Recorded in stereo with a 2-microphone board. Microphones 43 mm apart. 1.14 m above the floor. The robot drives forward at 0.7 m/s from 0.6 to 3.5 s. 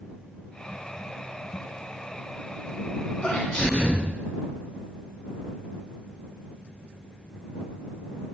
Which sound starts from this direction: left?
A sneeze, at 3.2 s.